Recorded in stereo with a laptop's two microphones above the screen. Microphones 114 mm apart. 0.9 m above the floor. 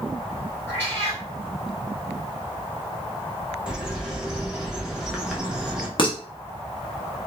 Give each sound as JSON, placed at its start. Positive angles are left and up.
{"t": 0.7, "sound": "a cat meowing", "side_deg": 15, "distance_m": 1.9}
{"t": 3.7, "sound": "a bird", "side_deg": -5, "distance_m": 0.7}
{"t": 6.0, "sound": "dishes clattering", "side_deg": 45, "distance_m": 0.8}